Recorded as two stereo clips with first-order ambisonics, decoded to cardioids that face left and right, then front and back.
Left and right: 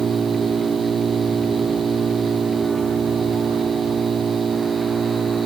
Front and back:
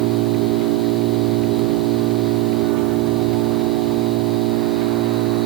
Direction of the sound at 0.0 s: 165° right.